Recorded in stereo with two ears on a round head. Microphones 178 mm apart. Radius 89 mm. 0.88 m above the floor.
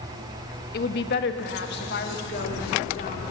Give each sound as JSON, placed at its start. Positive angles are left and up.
{"t": 0.7, "sound": "a woman speaking", "side_deg": 50, "distance_m": 1.4}